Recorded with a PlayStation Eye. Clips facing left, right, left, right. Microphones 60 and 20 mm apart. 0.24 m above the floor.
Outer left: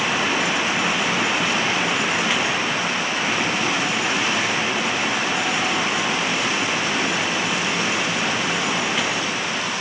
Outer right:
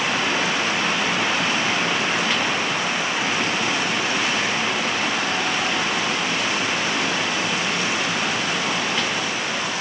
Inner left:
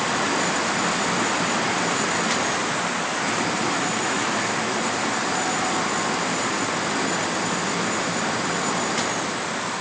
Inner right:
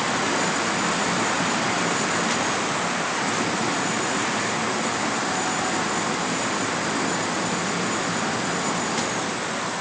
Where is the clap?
No clap in this recording.